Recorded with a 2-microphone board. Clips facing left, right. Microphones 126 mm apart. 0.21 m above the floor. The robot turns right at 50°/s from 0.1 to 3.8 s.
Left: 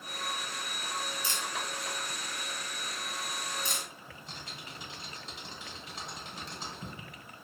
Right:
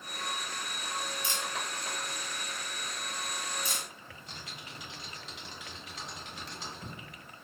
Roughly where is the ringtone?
No ringtone in this recording.